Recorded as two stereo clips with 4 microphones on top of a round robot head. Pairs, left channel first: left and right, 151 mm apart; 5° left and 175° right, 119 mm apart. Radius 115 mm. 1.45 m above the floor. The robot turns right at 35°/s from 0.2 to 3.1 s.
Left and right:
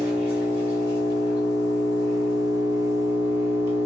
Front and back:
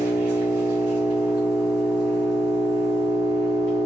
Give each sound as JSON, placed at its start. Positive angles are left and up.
{"t": 0.0, "sound": "an engine running", "azimuth_deg": -150, "distance_m": 1.4}